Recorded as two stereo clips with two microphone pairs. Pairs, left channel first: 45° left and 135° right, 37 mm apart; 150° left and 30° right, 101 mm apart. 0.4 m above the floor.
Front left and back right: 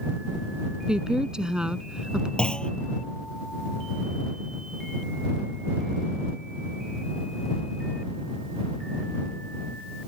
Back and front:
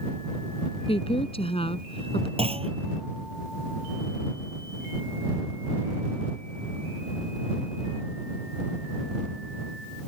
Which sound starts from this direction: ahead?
A clunk, at 2.4 s.